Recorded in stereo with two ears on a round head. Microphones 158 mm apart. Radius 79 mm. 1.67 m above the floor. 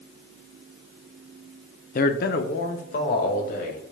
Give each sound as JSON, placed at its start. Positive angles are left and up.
{"t": 1.9, "sound": "a man speaking", "side_deg": 50, "distance_m": 0.6}